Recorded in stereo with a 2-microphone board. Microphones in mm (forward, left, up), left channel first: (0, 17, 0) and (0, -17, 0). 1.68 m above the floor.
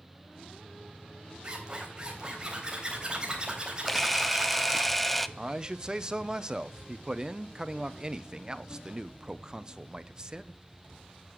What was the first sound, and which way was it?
A zipper, 25° right (ahead or behind).